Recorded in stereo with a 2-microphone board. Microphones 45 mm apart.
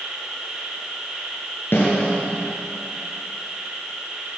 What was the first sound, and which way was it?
An insect, 15° right (ahead or behind).